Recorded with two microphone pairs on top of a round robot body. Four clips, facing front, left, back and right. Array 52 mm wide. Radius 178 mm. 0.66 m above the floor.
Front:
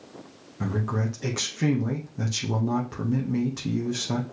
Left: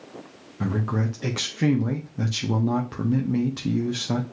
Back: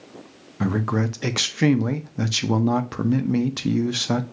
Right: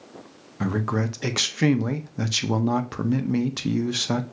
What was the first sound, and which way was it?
A man speaking, 140° right.